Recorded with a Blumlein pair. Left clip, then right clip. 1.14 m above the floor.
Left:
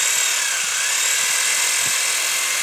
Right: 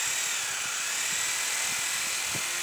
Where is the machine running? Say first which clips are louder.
Left 10 dB; 50° left, 0.7 m.